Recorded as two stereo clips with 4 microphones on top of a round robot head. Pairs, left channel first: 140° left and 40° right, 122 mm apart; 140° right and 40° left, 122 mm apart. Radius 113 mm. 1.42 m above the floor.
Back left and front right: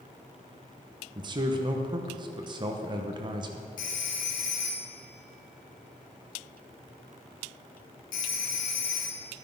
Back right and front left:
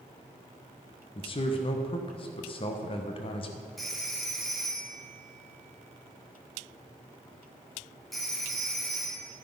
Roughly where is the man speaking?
Right.